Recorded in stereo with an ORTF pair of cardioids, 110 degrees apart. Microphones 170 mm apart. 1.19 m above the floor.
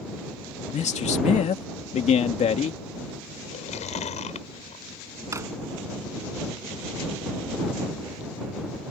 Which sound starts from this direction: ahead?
A drawer, at 5.3 s.